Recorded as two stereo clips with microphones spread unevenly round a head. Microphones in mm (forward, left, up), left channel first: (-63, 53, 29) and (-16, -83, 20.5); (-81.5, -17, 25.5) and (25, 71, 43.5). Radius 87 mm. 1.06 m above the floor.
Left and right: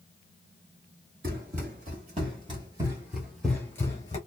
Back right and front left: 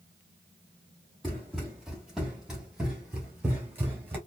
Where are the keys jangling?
No keys jangling in this recording.